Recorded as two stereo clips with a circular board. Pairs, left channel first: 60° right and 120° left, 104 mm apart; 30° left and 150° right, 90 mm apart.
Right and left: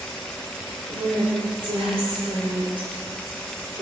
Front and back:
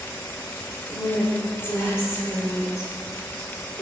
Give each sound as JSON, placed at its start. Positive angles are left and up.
{"t": 0.9, "sound": "a woman speaking", "azimuth_deg": 100, "distance_m": 4.5}